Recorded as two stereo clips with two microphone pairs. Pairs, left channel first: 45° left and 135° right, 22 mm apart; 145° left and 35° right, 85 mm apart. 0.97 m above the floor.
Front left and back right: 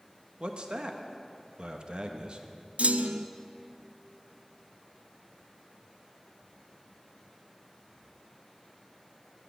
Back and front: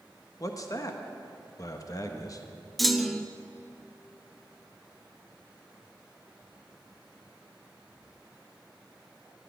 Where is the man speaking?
170° right, 1.1 m.